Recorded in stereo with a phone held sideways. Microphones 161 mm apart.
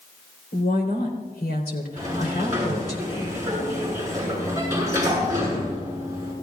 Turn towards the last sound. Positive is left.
turn(degrees=-20)  # may be behind; listen again after turning